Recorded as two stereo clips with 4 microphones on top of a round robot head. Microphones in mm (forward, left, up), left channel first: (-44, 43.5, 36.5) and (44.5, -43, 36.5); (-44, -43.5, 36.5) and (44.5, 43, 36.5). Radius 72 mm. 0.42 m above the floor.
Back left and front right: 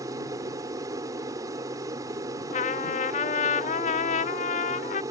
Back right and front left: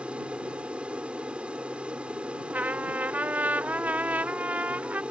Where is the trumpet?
120° left.